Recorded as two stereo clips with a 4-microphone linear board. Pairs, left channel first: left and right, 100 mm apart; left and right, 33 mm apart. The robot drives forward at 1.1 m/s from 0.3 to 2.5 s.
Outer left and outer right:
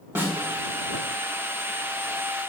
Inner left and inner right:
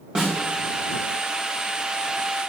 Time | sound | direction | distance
0.1 | a snare drum | 20° right (ahead or behind) | 2.5 m